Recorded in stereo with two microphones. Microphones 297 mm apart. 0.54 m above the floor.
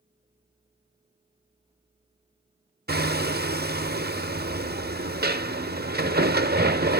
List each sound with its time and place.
2.9 s hammering: 35° right (ahead or behind), 0.6 m